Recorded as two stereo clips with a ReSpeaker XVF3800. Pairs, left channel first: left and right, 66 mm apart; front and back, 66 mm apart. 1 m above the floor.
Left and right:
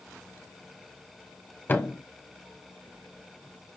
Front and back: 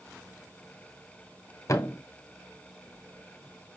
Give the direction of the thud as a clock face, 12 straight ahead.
11 o'clock.